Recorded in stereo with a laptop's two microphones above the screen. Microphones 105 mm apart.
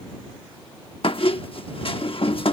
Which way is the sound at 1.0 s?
60° left (ahead or behind).